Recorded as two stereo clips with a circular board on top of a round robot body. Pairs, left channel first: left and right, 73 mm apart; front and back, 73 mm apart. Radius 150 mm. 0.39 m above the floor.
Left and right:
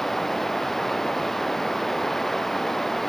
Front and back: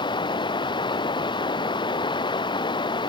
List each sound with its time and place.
0.0 s running water: 5° left